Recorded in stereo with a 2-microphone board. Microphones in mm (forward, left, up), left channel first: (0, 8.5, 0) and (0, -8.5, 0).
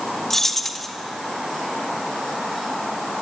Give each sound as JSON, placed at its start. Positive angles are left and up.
{"t": 0.3, "sound": "keys jangling", "side_deg": 20, "distance_m": 1.5}